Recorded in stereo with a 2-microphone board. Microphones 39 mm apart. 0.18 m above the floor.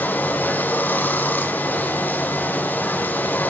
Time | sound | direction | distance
0.0 | running water | 50° left (ahead or behind) | 1.8 m